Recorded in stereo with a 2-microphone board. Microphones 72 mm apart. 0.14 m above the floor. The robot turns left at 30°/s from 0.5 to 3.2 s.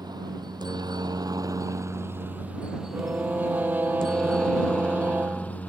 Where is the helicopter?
70° right (ahead or behind); by 5.7 s 20° left (ahead or behind).